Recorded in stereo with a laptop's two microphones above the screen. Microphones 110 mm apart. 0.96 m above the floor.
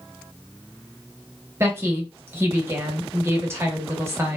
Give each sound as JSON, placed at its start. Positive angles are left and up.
{"t": 1.6, "sound": "a woman speaking", "side_deg": -25, "distance_m": 0.8}